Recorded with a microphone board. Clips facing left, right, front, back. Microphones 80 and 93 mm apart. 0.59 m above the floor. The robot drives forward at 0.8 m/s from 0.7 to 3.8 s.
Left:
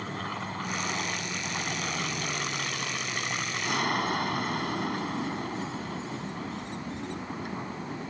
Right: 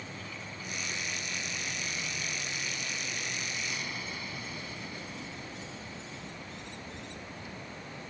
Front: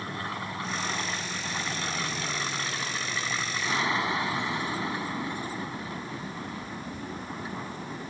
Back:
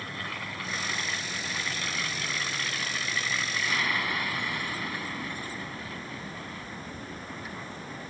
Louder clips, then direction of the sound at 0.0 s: Left 9 dB, front 3 dB; 60° left.